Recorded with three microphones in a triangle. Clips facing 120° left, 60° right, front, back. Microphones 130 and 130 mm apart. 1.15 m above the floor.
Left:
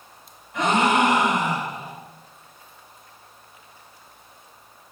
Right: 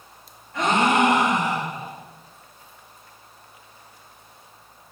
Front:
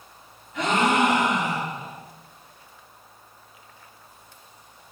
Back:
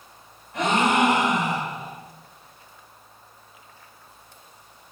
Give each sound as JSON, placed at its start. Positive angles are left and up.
{"t": 0.5, "sound": "a gasp", "azimuth_deg": -170, "distance_m": 4.5}